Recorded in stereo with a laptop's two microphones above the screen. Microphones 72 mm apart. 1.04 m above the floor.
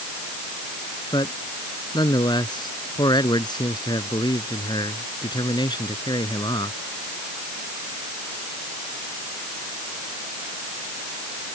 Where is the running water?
No running water in this recording.